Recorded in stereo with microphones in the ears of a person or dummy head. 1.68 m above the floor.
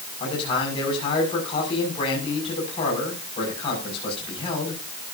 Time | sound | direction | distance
0.2 | a man speaking | 30° left (ahead or behind) | 7 m